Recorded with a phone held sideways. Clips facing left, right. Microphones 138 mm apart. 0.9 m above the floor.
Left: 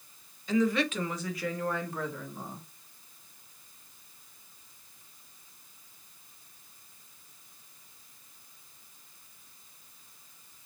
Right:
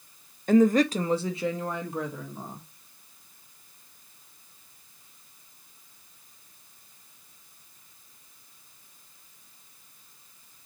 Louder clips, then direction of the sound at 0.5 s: Right 7 dB; 55° right (ahead or behind).